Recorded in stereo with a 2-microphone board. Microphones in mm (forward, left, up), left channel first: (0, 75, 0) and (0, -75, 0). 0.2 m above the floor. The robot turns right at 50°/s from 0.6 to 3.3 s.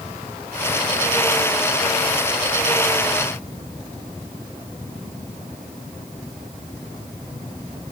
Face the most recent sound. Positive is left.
No sound to turn to.